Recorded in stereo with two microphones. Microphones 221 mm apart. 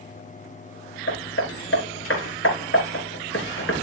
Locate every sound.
1.1 s hammering: 70° left (ahead or behind), 3.5 m